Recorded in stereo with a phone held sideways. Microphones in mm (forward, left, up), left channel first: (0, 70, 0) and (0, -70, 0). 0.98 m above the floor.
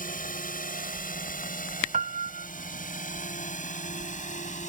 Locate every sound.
0.0 s a drone: 75° left (ahead or behind); by 4.7 s 60° left (ahead or behind)
1.9 s a piano: 60° right (ahead or behind)